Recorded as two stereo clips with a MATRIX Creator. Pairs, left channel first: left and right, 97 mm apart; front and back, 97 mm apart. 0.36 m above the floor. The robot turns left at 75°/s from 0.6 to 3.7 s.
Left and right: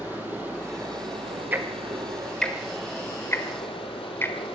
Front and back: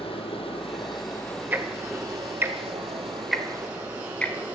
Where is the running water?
20° right, 3.5 m; by 4.5 s 110° left, 3.5 m.